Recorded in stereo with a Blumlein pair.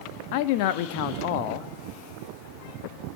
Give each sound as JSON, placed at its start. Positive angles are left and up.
{"t": 0.3, "sound": "a man speaking", "azimuth_deg": 45, "distance_m": 1.4}